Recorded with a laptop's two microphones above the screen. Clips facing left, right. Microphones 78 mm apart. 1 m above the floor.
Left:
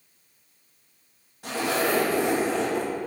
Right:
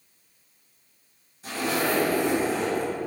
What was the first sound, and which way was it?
A zipper, 65° left (ahead or behind).